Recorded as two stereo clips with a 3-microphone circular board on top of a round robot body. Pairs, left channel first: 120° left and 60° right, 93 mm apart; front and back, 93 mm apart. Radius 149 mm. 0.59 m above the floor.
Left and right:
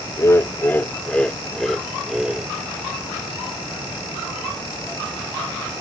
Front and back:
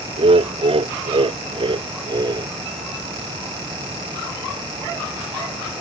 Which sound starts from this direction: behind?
Laughter, at 0.2 s.